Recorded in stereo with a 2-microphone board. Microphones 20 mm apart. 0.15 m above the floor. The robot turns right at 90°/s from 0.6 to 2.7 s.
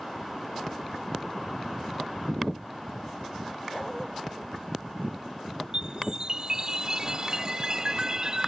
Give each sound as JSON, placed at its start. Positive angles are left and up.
{"t": 3.7, "sound": "a dog barking", "side_deg": 0}
{"t": 5.7, "sound": "a chime", "side_deg": -35}